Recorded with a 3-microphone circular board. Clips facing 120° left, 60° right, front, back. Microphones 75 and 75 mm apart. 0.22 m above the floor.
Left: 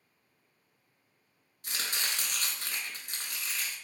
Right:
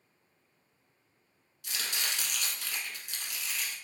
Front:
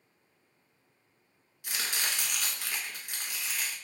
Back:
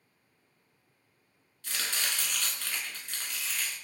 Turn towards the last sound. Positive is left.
turn(degrees=75)